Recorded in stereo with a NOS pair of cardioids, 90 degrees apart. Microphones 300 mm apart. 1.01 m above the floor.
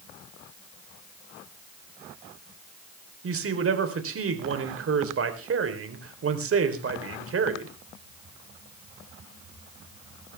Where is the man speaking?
45° right, 3.5 m.